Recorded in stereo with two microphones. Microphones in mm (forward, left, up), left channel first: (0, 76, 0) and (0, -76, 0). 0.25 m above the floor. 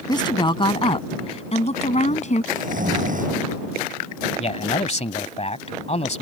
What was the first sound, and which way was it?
A woman speaking, 30° left (ahead or behind).